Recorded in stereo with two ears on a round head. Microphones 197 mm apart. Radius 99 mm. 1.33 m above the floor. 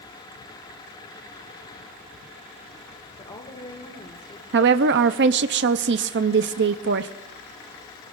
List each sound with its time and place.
3.2 s a woman speaking: 25° left (ahead or behind), 1.8 m
4.5 s a woman speaking: 50° right (ahead or behind), 0.5 m